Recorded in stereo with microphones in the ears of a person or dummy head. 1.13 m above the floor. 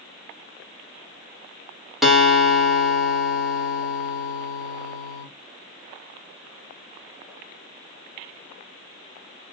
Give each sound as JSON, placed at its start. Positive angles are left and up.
{"t": 2.0, "sound": "a guitar", "side_deg": 0, "distance_m": 1.3}